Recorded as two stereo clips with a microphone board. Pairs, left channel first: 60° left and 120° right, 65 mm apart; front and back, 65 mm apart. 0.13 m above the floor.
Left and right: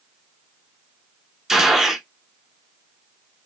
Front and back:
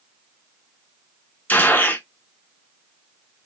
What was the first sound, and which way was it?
A gunshot, 40° right.